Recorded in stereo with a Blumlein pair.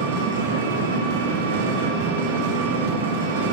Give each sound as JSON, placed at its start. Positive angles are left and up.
{"t": 0.0, "sound": "an engine running", "azimuth_deg": -60, "distance_m": 2.5}